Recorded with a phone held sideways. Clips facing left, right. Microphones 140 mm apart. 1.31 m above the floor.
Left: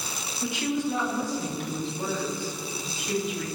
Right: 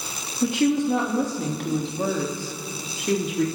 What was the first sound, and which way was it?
A woman speaking, 55° right (ahead or behind).